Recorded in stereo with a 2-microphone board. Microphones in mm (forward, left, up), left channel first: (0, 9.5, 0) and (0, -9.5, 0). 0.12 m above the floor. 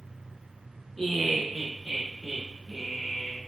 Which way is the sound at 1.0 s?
20° left (ahead or behind).